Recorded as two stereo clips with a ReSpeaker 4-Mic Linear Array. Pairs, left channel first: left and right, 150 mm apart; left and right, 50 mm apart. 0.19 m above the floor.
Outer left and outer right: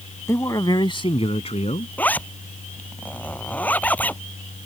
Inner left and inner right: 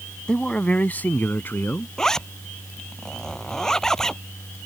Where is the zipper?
10° left (ahead or behind).